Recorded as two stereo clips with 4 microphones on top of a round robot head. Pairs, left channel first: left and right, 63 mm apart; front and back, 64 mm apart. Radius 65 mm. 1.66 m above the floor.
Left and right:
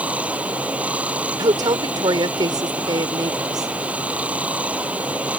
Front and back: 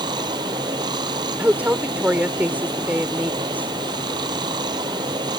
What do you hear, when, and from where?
0.0 s running water: 160° right
1.4 s a woman speaking: 105° right